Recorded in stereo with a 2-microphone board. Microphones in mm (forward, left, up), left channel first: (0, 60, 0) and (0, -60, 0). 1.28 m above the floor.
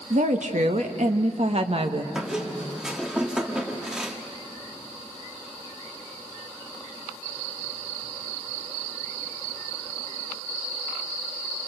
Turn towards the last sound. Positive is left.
turn(degrees=-5)  # may be behind; listen again after turning